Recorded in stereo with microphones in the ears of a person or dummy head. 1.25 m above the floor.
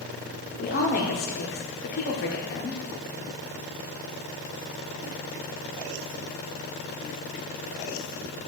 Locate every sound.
0.6 s a woman speaking: 45° left (ahead or behind), 0.8 m